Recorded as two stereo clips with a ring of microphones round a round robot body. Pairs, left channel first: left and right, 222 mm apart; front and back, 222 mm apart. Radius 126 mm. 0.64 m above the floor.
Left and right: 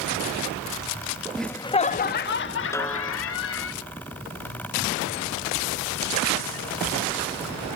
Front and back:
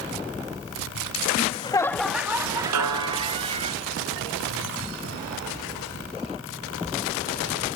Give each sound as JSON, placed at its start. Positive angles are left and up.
{"t": 1.4, "sound": "laughter", "azimuth_deg": 0}
{"t": 2.7, "sound": "a snare drum", "azimuth_deg": 170}